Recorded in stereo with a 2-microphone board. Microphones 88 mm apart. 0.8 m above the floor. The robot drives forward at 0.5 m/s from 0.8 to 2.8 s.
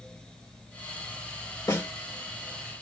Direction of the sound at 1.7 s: 40° left (ahead or behind).